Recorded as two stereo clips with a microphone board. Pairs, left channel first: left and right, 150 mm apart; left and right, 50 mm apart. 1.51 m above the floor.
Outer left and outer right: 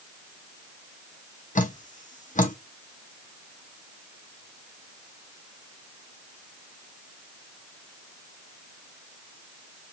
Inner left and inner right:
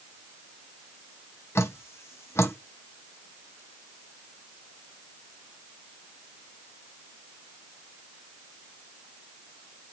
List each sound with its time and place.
1.6 s dripping: 55° left (ahead or behind), 0.8 m